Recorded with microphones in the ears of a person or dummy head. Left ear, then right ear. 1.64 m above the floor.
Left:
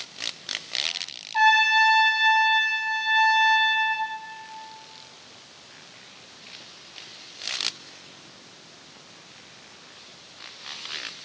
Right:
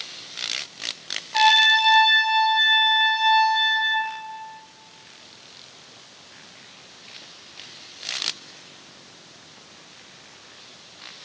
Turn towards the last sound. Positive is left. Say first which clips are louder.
# right 2 dB
turn(degrees=-60)  # may be behind; listen again after turning